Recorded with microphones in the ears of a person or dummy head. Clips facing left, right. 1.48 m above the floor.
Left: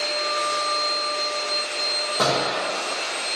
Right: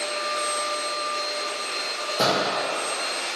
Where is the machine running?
5° left (ahead or behind), 0.9 m.